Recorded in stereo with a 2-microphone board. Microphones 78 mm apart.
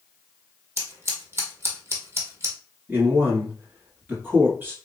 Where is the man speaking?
25° right (ahead or behind), 1.3 m.